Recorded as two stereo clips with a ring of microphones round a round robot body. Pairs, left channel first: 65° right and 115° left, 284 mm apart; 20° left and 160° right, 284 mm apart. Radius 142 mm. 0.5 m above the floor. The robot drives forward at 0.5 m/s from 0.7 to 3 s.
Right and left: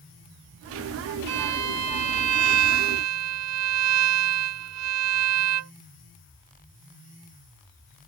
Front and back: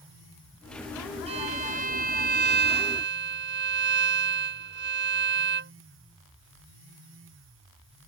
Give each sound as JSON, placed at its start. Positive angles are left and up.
{"t": 1.3, "sound": "a violin", "azimuth_deg": 135}